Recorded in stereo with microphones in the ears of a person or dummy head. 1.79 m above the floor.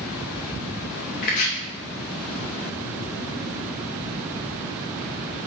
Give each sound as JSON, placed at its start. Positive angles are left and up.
{"t": 1.2, "sound": "chopping", "side_deg": 35, "distance_m": 0.7}